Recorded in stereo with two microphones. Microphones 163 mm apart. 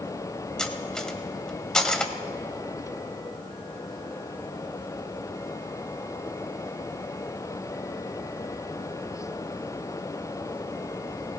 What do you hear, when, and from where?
0.6 s cutlery clinking: 5° left (ahead or behind), 1.0 m